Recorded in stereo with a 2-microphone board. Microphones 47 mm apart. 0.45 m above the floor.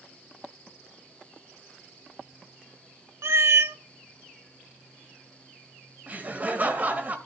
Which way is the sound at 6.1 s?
40° right (ahead or behind).